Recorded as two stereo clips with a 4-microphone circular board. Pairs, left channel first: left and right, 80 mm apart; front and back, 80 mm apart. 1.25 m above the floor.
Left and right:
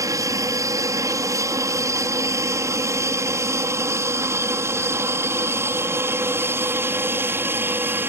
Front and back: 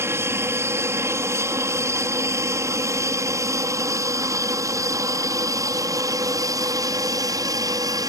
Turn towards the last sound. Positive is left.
turn(degrees=-150)